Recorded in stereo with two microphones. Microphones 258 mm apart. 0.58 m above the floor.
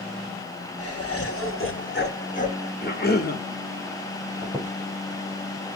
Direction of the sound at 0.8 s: 65° left (ahead or behind).